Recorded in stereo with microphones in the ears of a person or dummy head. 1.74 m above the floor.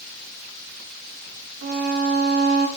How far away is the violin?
About 3 m.